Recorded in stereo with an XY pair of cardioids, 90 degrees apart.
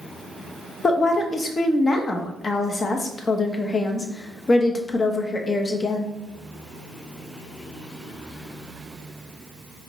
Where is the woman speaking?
40° left, 0.7 m.